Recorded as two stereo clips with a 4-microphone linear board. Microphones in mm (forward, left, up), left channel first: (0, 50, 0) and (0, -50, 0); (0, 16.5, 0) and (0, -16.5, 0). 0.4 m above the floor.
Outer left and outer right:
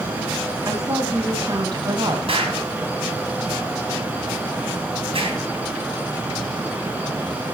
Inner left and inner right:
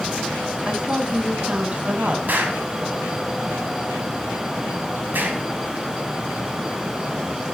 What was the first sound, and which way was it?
A woman speaking, 35° right (ahead or behind).